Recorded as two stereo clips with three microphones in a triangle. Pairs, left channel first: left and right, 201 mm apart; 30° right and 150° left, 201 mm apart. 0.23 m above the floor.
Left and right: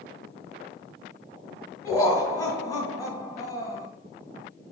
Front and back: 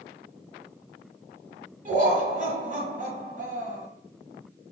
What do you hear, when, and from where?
1.9 s laughter: 155° left, 1.6 m